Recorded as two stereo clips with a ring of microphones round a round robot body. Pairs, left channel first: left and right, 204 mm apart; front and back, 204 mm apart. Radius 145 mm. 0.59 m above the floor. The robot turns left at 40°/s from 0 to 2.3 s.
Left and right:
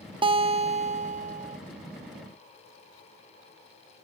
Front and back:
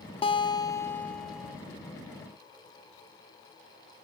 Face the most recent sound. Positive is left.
turn(degrees=-130)